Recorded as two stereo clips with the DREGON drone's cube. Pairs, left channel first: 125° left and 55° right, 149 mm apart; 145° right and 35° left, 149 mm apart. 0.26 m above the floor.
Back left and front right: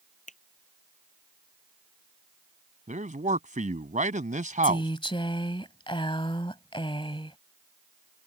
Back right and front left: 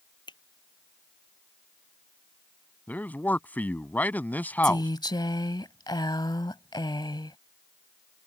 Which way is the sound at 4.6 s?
165° left.